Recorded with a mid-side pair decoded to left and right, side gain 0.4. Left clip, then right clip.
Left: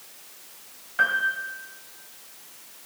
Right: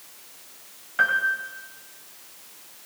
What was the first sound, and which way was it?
A piano, 15° right.